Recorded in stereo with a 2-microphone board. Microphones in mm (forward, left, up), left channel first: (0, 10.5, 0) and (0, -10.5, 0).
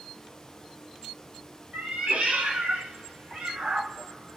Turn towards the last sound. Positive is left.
turn(degrees=-55)  # may be behind; listen again after turning